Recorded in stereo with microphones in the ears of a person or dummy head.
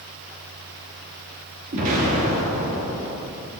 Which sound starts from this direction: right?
An explosion, at 1.7 s.